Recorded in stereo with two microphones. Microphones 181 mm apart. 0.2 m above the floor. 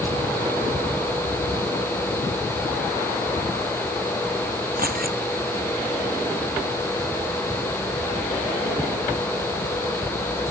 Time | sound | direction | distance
4.8 | keys jangling | 55° right (ahead or behind) | ?